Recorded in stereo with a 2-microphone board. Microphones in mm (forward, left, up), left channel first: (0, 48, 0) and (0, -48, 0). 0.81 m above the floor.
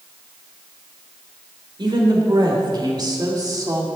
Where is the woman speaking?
55° right (ahead or behind), 3 m; by 3.9 s 35° right (ahead or behind), 1.8 m.